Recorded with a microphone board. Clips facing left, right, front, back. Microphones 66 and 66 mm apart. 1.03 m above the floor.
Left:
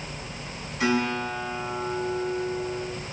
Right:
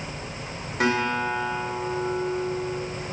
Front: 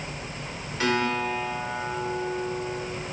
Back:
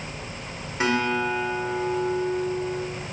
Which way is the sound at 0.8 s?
110° right.